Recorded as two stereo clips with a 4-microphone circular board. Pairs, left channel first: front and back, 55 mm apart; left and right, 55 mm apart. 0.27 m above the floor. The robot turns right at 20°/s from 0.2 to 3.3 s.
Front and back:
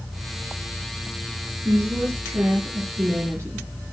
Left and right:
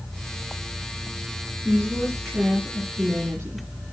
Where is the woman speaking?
175° right, 5.5 m; by 3.7 s 140° right, 5.5 m.